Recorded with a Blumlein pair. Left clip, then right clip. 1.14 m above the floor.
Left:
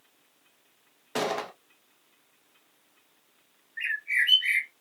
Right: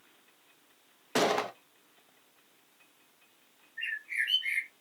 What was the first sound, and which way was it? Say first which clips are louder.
A gunshot: right 2 dB; 10° right.